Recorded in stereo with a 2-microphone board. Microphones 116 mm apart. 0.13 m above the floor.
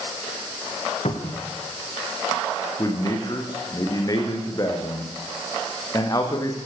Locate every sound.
1.1 s a cupboard door: 60° left (ahead or behind), 5.5 m
2.8 s a man speaking: 30° left (ahead or behind), 8.5 m